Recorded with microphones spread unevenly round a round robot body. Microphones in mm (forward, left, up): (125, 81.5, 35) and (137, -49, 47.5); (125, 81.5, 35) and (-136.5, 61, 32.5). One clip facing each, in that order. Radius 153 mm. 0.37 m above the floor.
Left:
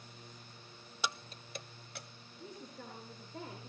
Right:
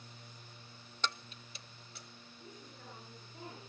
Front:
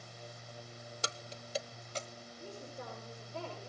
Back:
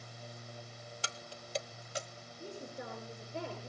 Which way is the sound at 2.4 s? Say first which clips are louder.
Left 6 dB, back 3 dB; 110° left.